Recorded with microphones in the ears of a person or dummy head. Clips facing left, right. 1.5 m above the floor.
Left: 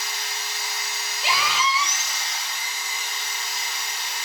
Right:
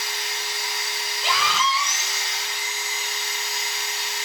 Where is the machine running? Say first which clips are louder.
Right 2 dB; 20° right (ahead or behind), 2.5 m.